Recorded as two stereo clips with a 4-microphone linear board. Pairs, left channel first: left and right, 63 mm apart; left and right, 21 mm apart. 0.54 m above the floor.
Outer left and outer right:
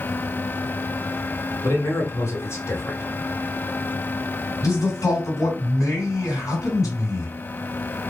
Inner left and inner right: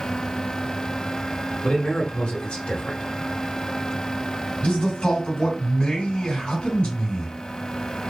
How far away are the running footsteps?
No running footsteps in this recording.